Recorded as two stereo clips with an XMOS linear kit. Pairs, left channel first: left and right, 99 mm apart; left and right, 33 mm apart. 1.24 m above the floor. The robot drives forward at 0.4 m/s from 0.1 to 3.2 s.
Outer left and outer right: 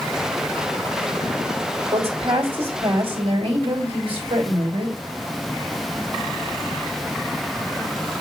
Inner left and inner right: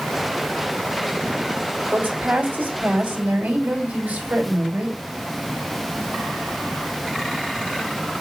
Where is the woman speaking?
75° right (ahead or behind), 3 m; by 5.0 s 65° right (ahead or behind), 3 m.